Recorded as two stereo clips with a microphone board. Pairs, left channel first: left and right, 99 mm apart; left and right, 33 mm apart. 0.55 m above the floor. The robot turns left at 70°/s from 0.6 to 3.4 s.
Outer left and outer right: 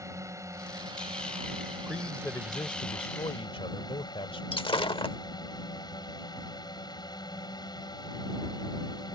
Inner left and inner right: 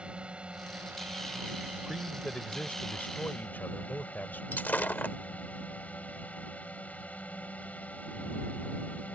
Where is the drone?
35° right; by 9.2 s 130° left.